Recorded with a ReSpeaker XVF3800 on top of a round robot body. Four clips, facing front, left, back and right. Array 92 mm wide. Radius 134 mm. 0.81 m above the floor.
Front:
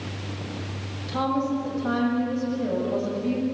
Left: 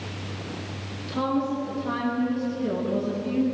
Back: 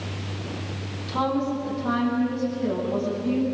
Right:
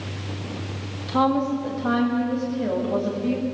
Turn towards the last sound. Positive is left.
turn(degrees=-65)